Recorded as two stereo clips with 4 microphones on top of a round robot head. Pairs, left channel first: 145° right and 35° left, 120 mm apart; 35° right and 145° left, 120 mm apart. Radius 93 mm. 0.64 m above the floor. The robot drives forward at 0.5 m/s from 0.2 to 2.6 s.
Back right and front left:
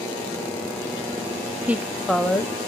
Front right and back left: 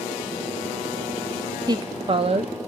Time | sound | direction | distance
1.7 | a woman speaking | 105° left | 0.7 m